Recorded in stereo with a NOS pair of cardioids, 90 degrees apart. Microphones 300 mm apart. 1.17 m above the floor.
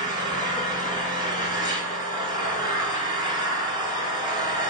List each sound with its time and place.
0.0 s an engine running: 15° right, 0.8 m